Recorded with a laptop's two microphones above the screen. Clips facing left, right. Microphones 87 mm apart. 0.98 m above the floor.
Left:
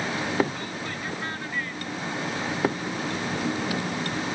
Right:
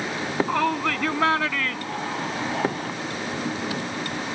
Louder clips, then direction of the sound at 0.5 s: Right 11 dB; 85° right.